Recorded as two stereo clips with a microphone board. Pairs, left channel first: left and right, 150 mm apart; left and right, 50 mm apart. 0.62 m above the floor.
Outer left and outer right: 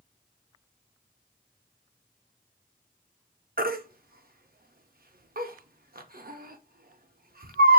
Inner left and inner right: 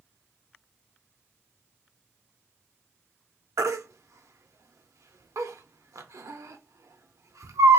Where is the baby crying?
90° right, 0.5 m.